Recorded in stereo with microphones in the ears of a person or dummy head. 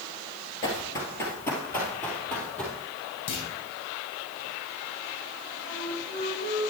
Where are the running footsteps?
25° left (ahead or behind), 2 m; by 2.8 s 10° left (ahead or behind), 3 m.